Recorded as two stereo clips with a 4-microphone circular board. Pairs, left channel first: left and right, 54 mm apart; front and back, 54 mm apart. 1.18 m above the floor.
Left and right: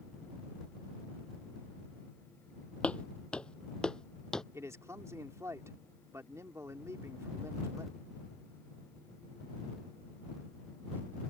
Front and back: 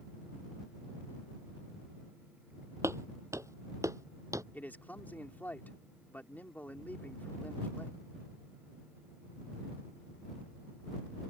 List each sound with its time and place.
2.8 s footsteps: 155° left; by 4.4 s 165° left
4.5 s a man speaking: 60° right